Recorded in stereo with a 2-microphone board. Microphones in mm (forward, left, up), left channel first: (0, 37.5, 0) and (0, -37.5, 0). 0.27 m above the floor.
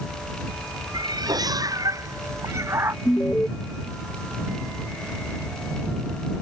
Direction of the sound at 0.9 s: 70° right (ahead or behind).